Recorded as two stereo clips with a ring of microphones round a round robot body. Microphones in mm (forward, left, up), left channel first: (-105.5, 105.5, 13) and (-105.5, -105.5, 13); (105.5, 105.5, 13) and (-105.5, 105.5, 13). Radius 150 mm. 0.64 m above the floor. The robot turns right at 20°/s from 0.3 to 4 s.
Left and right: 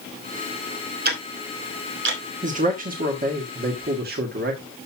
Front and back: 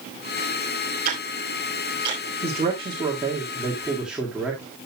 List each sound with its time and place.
1.1 s ticking: 130° right, 2.5 m; by 2.2 s 105° right, 2.5 m
2.4 s a man speaking: 125° right, 1.5 m; by 4.6 s 95° right, 1.5 m